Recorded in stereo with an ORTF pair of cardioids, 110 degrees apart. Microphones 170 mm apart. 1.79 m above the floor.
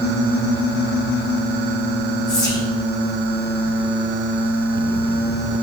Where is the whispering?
5° left, 5.5 m.